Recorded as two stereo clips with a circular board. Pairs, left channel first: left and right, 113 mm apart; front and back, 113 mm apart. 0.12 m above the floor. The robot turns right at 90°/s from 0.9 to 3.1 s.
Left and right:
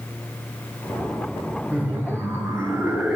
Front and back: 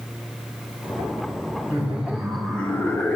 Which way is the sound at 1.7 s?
145° right.